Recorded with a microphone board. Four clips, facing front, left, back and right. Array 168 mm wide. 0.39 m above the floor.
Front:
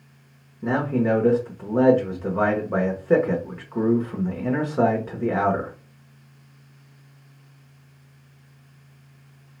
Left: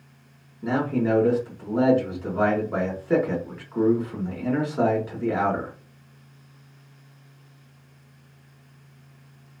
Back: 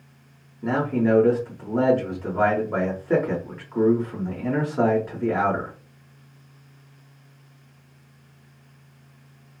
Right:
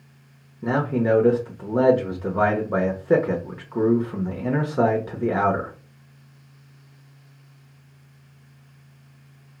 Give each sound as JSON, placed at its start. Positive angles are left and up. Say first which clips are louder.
{"t": 0.6, "sound": "a man speaking", "louder": "right 2 dB, even", "azimuth_deg": -70, "distance_m": 0.9}